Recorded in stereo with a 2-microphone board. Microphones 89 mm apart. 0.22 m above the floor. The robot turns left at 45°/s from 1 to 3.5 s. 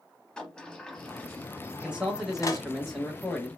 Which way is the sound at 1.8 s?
10° right (ahead or behind).